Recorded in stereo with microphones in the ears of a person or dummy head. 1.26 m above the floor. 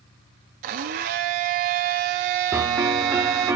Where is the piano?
20° right (ahead or behind), 1.2 m.